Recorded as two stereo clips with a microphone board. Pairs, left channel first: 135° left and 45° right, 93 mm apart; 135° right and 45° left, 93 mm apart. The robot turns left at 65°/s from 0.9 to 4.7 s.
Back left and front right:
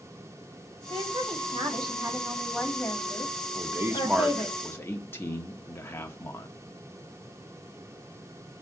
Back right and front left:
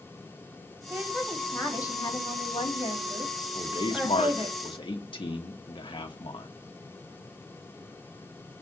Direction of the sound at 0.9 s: 25° right.